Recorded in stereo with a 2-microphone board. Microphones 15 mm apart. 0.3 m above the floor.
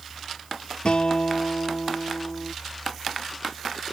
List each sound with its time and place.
0.8 s a guitar: 80° left